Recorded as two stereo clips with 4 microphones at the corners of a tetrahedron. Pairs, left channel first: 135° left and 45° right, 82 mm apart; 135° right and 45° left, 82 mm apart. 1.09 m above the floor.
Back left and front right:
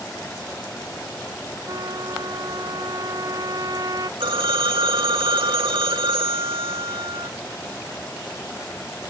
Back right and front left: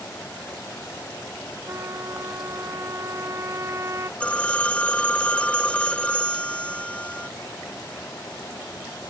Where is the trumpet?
5° right.